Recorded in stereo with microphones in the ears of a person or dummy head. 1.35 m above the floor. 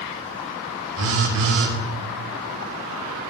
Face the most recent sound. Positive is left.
turn(degrees=-55)  # may be behind; listen again after turning